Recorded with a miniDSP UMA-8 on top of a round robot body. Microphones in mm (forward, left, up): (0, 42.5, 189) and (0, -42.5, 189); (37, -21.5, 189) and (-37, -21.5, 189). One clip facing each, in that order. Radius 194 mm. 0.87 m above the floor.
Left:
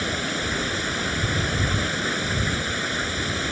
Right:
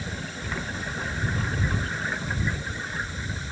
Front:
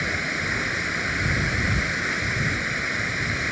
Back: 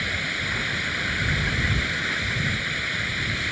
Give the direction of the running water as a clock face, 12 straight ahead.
10 o'clock.